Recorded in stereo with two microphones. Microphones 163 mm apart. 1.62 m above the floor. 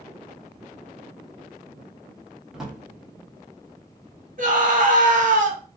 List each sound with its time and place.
2.5 s a drawer: centre (ahead or behind), 1.0 m
4.4 s a scream: 55° right (ahead or behind), 0.8 m